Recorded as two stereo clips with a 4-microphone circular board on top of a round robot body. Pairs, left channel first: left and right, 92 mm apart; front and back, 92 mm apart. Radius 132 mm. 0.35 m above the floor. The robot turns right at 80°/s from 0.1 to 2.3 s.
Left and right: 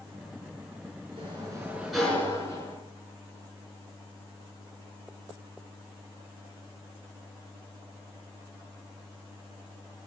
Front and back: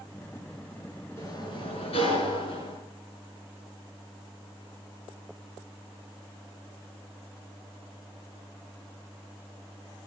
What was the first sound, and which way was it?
A sliding door, 65° right.